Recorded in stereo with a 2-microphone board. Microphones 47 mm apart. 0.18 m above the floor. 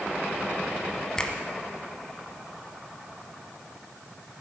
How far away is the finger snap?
About 1.2 m.